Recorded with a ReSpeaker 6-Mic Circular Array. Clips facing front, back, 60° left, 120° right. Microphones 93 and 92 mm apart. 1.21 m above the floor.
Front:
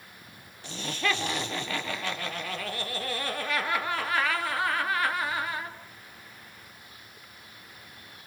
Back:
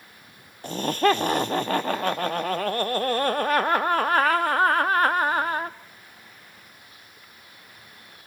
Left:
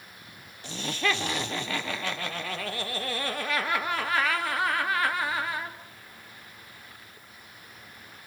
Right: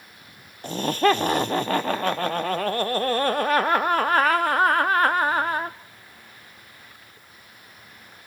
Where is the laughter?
150° right, 0.6 m.